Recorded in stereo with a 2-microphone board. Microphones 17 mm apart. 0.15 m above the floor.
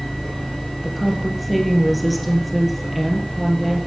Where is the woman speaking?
Centre (ahead or behind), 3 m.